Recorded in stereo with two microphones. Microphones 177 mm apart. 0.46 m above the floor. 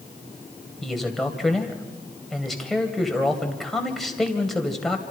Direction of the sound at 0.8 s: Centre (ahead or behind).